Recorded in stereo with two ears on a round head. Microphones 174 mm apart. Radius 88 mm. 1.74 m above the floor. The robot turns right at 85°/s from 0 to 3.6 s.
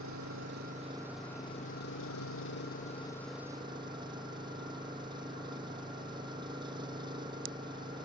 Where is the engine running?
100° right; by 8.1 s 155° right.